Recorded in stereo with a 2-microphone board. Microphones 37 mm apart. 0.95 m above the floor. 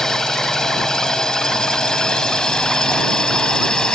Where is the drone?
15° left (ahead or behind); by 4.0 s 20° left (ahead or behind).